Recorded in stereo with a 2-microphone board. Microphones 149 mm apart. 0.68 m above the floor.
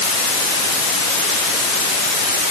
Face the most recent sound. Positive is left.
No sound to turn to.